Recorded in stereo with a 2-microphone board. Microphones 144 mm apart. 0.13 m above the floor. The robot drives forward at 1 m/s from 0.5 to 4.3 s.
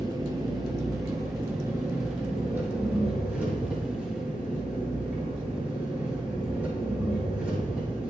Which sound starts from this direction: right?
An engine running, at 0.0 s.